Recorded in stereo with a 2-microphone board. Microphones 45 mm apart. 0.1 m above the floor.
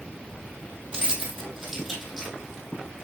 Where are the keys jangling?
15° right (ahead or behind), 1.9 m; by 2.4 s 5° left (ahead or behind), 2.5 m.